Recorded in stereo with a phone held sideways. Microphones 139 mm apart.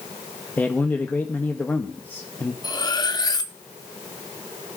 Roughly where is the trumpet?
No trumpet in this recording.